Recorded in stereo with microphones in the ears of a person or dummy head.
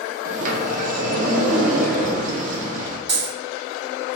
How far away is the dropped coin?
About 1.9 m.